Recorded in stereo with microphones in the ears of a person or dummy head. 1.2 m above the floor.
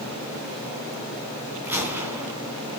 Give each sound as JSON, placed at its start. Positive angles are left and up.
{"t": 1.6, "sound": "a gunshot", "side_deg": -5, "distance_m": 2.5}